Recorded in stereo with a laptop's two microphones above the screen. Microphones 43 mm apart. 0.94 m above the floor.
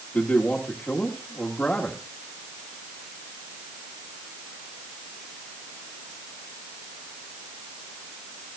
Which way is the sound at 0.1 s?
30° left (ahead or behind).